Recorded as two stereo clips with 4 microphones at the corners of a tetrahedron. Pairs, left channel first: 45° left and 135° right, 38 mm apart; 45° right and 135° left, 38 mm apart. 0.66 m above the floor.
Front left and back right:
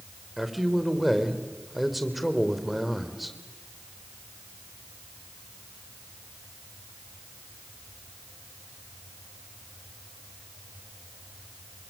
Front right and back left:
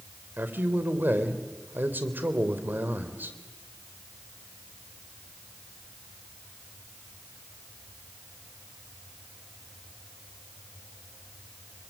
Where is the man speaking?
135° left, 3 m.